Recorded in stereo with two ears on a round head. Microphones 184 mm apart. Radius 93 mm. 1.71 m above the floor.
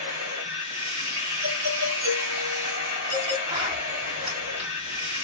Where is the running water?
40° right (ahead or behind), 1.9 m.